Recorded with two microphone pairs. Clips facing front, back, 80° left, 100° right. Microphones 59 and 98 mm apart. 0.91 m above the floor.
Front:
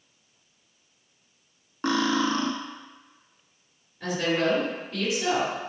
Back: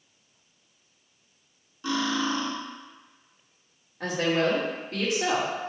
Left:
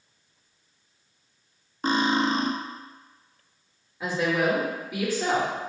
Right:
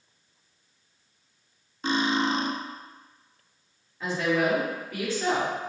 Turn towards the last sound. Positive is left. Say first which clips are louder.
# even, left 1 dB
turn(degrees=160)